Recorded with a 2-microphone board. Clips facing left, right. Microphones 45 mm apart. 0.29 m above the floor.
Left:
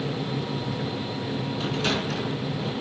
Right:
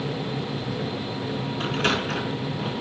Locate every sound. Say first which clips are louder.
1.6 s a sliding door: right 3 dB; 45° right (ahead or behind), 4 m